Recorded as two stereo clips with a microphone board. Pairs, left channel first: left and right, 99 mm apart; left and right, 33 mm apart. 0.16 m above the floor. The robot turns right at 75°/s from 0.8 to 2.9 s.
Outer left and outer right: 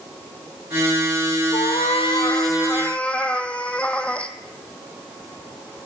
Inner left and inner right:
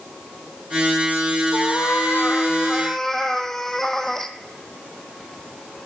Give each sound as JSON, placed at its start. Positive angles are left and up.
{"t": 1.5, "sound": "a cat meowing", "azimuth_deg": 65, "distance_m": 0.7}